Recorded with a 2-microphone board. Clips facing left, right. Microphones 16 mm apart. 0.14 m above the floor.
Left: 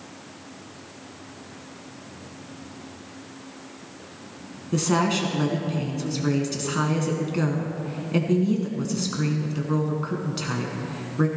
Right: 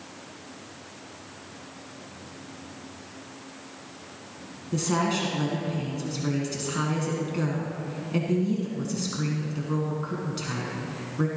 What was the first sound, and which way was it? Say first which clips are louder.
A woman speaking: left 3 dB; 20° left (ahead or behind).